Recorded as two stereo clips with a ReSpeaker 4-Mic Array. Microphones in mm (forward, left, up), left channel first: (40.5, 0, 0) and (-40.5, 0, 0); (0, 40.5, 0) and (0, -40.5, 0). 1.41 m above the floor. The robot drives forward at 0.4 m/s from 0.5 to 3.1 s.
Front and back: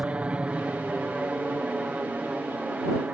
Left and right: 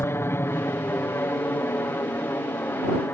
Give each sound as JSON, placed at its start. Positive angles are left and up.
{"t": 0.0, "sound": "an aircraft", "azimuth_deg": 115}